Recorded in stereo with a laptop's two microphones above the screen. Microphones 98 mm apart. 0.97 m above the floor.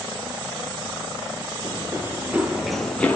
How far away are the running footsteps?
About 1.2 m.